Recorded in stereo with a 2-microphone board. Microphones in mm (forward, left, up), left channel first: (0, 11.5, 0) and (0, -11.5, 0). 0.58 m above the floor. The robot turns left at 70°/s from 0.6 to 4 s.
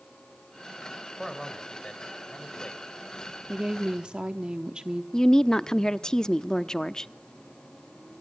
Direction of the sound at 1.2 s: Straight behind.